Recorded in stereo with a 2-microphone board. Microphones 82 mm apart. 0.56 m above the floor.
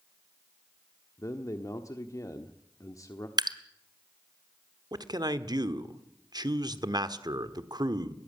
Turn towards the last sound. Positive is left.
turn(degrees=-55)  # may be behind; listen again after turning